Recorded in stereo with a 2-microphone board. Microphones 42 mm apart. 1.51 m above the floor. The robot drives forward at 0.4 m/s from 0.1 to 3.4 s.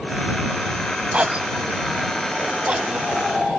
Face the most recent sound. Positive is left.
turn(degrees=-30)  # may be behind; listen again after turning